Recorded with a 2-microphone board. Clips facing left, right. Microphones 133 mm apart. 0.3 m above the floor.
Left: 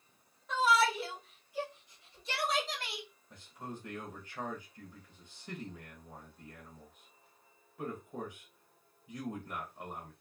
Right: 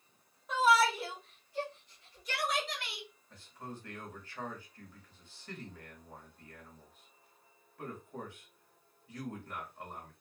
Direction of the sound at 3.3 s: 20° left (ahead or behind).